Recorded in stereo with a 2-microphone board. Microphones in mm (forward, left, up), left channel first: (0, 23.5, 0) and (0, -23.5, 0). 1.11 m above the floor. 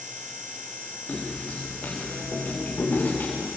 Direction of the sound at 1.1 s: 35° left (ahead or behind).